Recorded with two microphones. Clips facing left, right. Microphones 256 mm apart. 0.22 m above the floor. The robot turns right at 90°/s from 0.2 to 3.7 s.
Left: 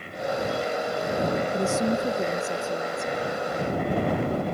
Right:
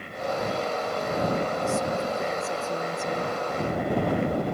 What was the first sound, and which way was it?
A woman speaking, 80° left.